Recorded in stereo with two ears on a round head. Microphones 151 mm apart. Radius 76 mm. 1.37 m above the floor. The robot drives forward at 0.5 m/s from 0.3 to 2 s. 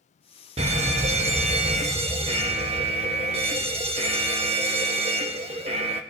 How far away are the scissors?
No scissors in this recording.